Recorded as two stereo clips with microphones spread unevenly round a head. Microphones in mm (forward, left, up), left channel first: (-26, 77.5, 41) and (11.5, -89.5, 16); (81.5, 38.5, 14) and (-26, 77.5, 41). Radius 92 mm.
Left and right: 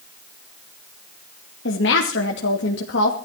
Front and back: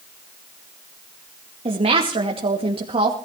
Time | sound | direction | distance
1.6 | a woman speaking | 125° left | 2.5 m